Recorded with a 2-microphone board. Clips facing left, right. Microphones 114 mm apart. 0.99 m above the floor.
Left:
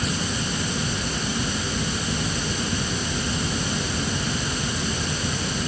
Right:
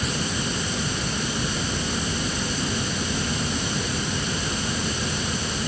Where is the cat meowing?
No cat meowing in this recording.